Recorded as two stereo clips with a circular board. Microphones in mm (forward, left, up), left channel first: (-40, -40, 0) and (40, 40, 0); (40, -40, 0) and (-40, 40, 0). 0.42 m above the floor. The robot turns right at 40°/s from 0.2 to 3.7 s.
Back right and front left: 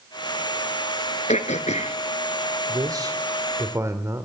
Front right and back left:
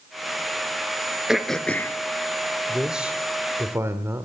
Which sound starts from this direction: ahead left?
A man speaking, at 2.7 s.